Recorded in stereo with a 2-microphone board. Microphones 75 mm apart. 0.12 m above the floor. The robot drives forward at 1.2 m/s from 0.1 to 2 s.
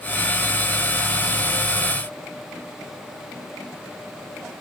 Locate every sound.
Only background noise.